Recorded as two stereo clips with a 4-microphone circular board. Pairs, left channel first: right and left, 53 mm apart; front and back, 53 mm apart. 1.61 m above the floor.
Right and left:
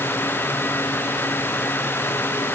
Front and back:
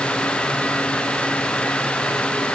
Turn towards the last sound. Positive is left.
No sound to turn to.